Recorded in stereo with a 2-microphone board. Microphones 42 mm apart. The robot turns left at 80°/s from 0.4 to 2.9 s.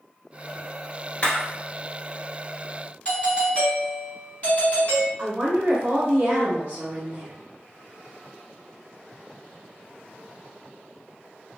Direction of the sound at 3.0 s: 30° left (ahead or behind).